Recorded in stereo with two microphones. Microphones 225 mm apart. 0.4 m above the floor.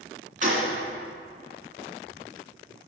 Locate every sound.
0.4 s a gunshot: 35° right (ahead or behind), 2.5 m